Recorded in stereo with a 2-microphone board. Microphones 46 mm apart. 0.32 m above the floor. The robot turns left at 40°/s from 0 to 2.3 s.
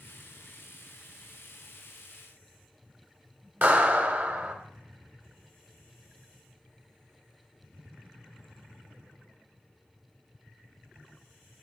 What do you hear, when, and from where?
3.6 s a clap: 40° right (ahead or behind), 1.2 m